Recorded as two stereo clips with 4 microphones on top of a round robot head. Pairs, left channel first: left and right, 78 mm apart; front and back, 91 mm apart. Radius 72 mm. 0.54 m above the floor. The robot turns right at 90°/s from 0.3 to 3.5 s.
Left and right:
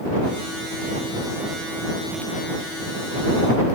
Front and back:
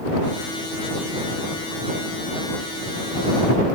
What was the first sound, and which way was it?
Only background noise.